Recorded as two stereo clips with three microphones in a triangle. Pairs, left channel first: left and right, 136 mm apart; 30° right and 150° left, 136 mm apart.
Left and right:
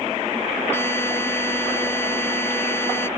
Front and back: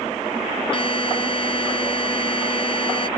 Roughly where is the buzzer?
Ahead.